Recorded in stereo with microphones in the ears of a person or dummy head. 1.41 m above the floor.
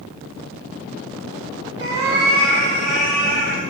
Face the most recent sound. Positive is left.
turn(degrees=-35)  # may be behind; listen again after turning